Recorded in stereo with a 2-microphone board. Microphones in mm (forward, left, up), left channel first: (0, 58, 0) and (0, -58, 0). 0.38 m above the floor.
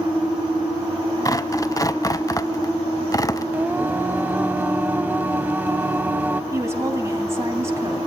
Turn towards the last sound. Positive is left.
turn(degrees=-25)  # may be behind; listen again after turning